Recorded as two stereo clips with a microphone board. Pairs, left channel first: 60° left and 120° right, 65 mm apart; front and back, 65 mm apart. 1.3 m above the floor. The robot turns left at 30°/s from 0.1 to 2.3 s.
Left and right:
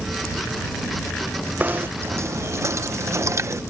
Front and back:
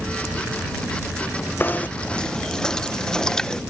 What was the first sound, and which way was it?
Knocking, 60° right.